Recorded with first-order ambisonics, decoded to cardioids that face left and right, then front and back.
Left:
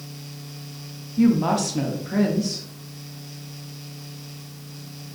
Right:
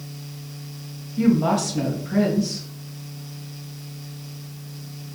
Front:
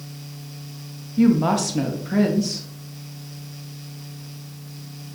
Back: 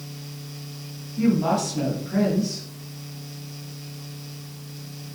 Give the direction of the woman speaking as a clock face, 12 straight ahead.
12 o'clock.